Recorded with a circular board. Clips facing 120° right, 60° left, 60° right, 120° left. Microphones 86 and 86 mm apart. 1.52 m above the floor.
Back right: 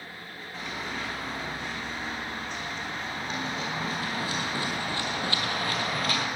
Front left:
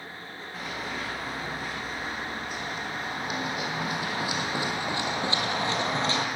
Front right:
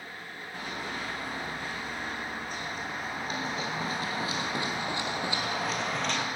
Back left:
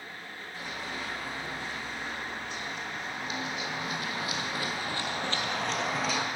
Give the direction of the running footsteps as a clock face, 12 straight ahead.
1 o'clock.